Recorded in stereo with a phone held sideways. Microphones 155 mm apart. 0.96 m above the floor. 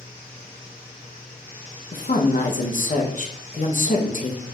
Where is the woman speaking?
55° left (ahead or behind), 0.7 m.